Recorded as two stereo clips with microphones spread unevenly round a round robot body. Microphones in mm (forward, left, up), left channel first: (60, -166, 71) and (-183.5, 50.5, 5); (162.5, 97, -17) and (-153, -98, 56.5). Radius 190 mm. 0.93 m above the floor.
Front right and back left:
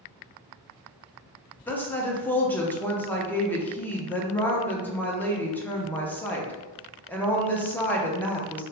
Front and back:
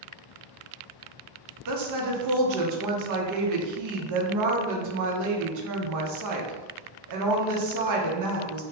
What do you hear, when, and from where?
1.7 s a woman speaking: 140° right, 0.7 m